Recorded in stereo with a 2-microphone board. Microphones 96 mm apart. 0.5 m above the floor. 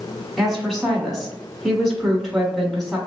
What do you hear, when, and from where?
0.4 s a woman speaking: 5° left (ahead or behind), 1.1 m